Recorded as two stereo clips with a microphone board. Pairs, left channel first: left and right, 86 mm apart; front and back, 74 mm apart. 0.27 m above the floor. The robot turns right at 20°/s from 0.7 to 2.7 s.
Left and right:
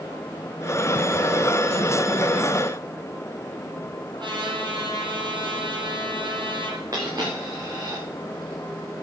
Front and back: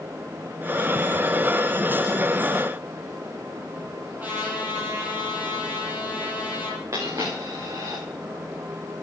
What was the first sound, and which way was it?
A trumpet, 115° right.